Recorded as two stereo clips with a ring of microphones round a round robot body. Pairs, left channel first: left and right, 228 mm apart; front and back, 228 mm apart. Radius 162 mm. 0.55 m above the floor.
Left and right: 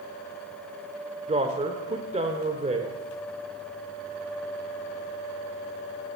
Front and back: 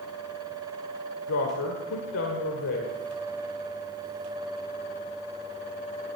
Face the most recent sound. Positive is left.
turn(degrees=-30)